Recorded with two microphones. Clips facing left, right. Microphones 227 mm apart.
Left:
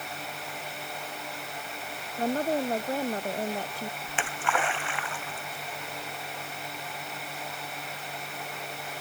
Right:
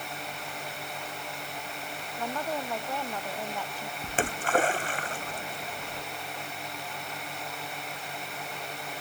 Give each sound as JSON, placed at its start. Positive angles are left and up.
{"t": 2.2, "sound": "a woman speaking", "side_deg": 35}
{"t": 4.0, "sound": "a splash", "side_deg": -40}